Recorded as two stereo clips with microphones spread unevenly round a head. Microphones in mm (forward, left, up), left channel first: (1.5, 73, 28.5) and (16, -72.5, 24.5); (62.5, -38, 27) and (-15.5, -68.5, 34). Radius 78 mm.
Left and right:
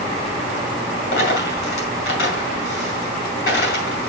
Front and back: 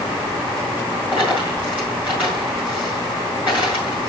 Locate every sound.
1.1 s a dropped coin: 120° left, 5 m